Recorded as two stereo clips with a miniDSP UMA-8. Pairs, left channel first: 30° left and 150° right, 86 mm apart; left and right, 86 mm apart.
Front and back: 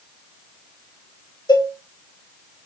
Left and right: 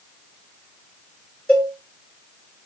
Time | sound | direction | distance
1.5 | a cowbell | 15° left | 2 m